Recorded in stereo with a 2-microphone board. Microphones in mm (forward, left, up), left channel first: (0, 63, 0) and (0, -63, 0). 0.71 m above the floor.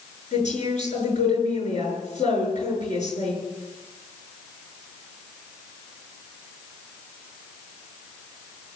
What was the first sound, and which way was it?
A woman speaking, 70° left (ahead or behind).